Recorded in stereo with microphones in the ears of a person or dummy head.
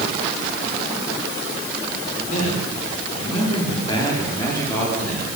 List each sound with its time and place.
2.3 s a man speaking: 50° left (ahead or behind), 5.5 m; by 5.2 s 10° left (ahead or behind), 4.5 m